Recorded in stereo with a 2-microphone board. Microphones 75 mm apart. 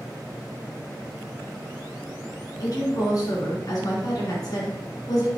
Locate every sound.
2.6 s a woman speaking: 50° left (ahead or behind), 3 m